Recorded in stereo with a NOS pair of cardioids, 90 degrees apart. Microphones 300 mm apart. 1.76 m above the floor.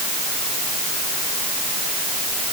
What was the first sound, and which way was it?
Only background noise.